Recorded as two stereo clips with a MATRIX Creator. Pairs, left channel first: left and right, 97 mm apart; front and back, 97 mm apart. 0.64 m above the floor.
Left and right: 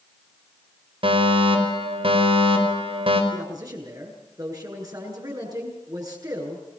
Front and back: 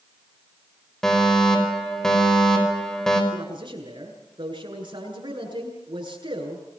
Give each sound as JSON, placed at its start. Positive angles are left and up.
{"t": 1.0, "sound": "a fire alarm", "azimuth_deg": -85, "distance_m": 4.5}
{"t": 3.3, "sound": "a man speaking", "azimuth_deg": -140, "distance_m": 8.5}